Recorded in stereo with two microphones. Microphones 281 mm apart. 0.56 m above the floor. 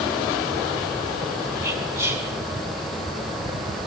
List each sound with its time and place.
1.6 s whispering: 10° right (ahead or behind), 2.5 m